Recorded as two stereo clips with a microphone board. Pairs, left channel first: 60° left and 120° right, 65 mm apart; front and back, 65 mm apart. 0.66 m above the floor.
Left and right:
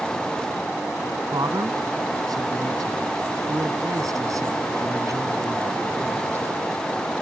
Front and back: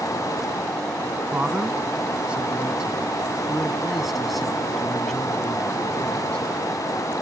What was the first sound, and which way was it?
A man speaking, 115° right.